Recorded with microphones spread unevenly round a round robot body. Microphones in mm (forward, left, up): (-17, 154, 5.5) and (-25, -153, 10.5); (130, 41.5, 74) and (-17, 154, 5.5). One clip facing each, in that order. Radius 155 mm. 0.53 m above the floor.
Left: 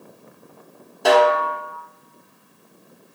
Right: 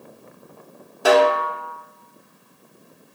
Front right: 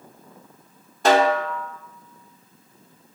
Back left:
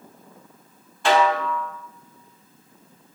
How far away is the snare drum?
About 1.0 m.